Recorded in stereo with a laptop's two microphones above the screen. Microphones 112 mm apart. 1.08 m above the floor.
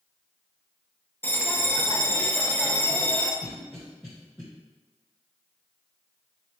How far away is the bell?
About 0.9 m.